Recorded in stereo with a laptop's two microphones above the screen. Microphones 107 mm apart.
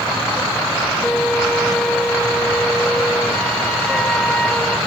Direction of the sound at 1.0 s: 5° left (ahead or behind).